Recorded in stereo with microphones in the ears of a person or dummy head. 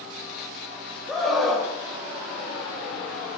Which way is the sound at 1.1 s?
Centre (ahead or behind).